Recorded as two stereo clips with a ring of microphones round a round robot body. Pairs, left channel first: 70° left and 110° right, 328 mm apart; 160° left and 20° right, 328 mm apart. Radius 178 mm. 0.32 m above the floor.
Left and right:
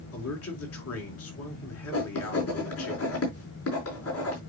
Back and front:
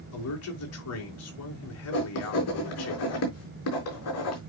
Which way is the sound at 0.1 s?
115° left.